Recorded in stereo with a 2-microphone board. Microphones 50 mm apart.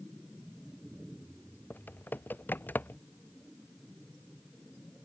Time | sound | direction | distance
1.7 | typing on a keyboard | 40° left (ahead or behind) | ?